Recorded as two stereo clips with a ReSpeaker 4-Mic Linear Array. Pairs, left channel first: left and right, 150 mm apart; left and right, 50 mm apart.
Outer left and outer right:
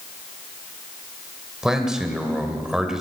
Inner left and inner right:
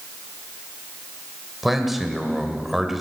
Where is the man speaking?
5° right (ahead or behind), 1.4 m.